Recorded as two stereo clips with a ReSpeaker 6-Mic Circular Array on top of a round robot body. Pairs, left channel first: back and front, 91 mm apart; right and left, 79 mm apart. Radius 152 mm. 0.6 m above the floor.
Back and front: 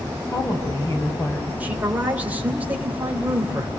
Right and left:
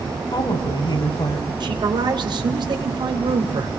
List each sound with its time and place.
0.3 s a woman speaking: 120° right, 5 m
1.6 s a man speaking: 75° left, 2.5 m